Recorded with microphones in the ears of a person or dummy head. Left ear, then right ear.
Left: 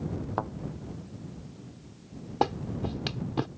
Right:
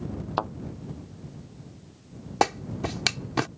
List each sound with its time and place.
0.4 s a thud: 70° right (ahead or behind)
2.4 s a clap: 60° right (ahead or behind)